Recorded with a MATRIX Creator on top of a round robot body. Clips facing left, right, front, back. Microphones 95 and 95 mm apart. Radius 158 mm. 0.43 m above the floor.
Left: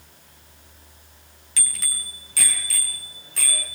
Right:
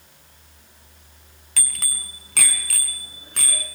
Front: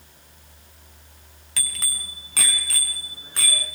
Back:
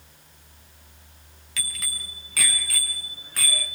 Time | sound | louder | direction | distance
1.6 | a bicycle bell | right 1 dB, front 1 dB | 55° right | 3 m